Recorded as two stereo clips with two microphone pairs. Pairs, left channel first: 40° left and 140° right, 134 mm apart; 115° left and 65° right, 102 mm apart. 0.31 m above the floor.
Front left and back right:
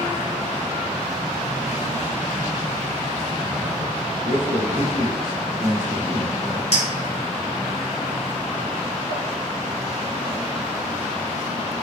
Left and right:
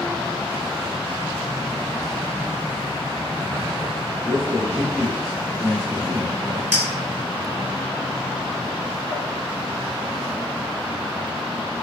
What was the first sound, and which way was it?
A man speaking, 140° right.